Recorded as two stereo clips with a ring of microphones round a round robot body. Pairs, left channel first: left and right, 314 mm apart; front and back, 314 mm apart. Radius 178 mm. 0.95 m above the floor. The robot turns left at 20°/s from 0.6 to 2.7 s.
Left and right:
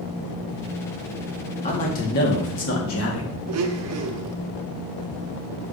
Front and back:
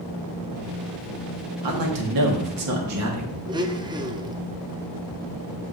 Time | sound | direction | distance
1.6 | a man speaking | 160° left | 1.5 m
3.5 | a blender | 105° right | 0.7 m